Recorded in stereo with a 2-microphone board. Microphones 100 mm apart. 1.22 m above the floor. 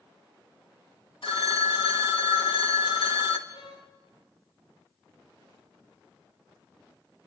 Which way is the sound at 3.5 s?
70° left (ahead or behind).